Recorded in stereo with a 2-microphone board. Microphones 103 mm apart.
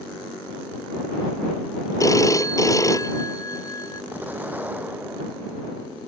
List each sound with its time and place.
2.0 s a phone ringing: 35° left (ahead or behind)
4.1 s an explosion: 15° right (ahead or behind)